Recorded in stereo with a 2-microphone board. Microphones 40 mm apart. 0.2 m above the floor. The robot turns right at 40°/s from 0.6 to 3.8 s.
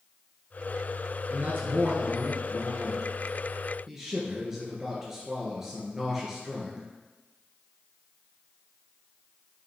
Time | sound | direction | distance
1.3 | a man speaking | 115° right | 2.5 m